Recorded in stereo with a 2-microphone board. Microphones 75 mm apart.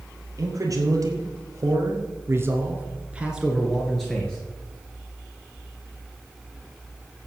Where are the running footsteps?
I don't hear running footsteps.